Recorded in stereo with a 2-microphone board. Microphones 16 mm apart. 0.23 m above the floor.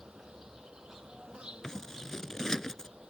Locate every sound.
0.0 s an insect: 70° right (ahead or behind)
1.6 s scissors: 35° left (ahead or behind)